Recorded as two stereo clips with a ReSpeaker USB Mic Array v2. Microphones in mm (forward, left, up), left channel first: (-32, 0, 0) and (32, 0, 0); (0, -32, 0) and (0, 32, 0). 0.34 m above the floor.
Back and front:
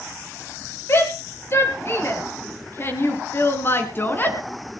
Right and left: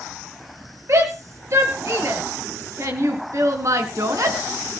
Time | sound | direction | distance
0.9 | a shout | 130° left | 7 m